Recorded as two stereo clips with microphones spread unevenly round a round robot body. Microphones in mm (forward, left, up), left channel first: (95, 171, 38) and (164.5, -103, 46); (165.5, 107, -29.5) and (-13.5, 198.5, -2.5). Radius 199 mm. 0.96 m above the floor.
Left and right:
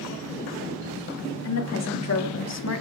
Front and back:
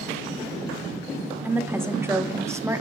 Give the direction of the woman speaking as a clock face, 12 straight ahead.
10 o'clock.